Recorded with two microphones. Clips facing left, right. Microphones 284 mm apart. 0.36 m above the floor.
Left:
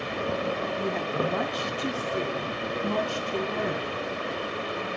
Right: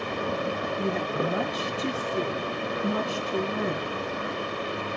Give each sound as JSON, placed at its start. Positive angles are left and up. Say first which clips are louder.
{"t": 0.8, "sound": "a woman speaking", "louder": "right 2 dB", "side_deg": -5, "distance_m": 2.5}